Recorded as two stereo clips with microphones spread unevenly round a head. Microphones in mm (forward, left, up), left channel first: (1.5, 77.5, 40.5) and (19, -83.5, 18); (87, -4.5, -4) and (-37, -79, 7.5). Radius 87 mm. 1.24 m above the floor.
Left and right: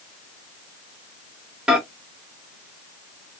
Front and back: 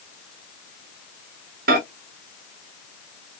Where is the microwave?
170° right, 0.9 m.